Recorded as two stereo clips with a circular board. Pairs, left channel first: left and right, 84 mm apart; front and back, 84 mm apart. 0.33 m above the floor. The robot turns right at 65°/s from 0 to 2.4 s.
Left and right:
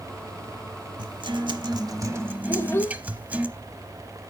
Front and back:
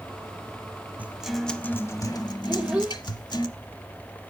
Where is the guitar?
110° right, 0.7 m; by 3.5 s 20° right, 0.7 m.